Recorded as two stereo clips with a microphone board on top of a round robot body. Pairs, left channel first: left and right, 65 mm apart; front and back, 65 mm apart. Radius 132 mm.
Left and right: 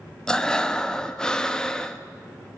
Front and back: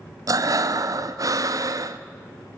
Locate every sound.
0.3 s breathing: 170° left, 1.2 m